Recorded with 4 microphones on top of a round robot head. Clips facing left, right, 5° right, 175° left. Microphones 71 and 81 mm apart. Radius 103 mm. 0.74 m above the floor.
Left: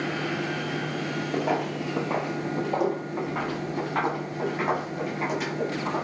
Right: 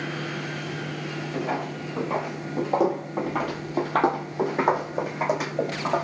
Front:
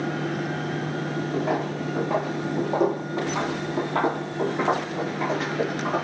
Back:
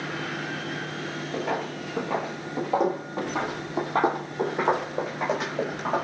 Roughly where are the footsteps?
Ahead left.